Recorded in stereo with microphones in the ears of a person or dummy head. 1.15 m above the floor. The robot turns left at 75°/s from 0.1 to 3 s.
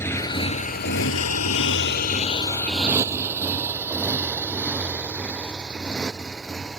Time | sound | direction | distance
0.0 | a motorcycle | 15° left (ahead or behind) | ?